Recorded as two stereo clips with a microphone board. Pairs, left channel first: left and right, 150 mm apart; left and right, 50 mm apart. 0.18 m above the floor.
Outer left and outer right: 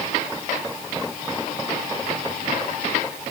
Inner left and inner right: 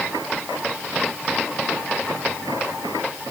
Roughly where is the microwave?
I don't hear a microwave.